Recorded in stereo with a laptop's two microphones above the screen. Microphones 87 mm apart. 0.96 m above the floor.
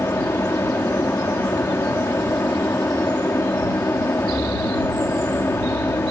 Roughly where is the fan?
Left.